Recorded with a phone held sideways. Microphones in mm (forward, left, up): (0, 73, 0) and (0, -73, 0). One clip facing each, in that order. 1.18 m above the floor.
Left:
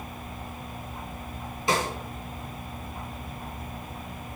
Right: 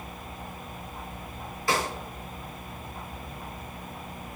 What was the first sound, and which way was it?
A snare drum, 20° left (ahead or behind).